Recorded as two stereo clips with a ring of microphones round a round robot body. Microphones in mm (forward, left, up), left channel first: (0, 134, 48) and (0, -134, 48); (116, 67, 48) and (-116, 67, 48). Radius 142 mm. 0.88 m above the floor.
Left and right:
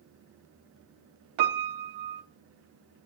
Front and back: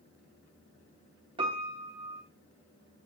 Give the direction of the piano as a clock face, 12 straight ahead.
4 o'clock.